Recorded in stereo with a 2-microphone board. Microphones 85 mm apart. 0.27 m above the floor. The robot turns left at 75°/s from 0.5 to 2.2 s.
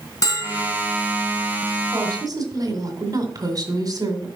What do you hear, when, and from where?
0.2 s a bell: 45° left (ahead or behind), 2 m; by 0.7 s 55° left (ahead or behind), 2 m
1.9 s a woman speaking: 40° right (ahead or behind), 1.9 m; by 4.3 s 50° right (ahead or behind), 1.9 m